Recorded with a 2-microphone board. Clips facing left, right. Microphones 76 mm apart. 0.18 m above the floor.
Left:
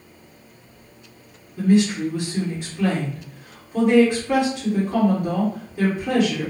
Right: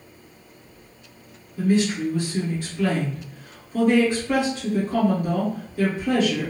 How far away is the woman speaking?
About 1.7 m.